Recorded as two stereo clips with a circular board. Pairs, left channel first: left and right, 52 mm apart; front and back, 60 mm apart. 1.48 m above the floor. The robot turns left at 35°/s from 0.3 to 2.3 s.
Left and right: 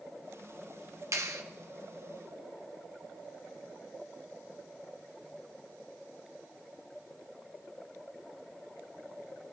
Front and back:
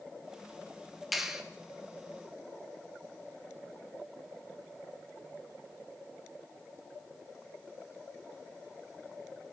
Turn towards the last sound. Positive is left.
turn(degrees=-130)